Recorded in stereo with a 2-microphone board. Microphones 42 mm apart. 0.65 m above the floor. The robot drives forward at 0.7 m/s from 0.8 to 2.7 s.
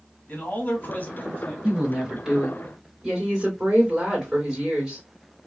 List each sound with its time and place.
0.3 s a man speaking: 45° left (ahead or behind), 1.2 m; by 1.5 s 35° left (ahead or behind), 1.5 m
1.6 s a woman speaking: 20° right (ahead or behind), 1.6 m; by 5.0 s 15° right (ahead or behind), 2 m